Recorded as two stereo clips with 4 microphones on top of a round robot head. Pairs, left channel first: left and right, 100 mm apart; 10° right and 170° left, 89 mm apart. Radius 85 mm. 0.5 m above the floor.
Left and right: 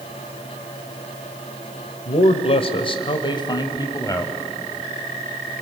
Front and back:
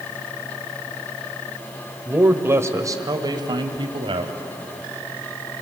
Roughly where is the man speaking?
Left.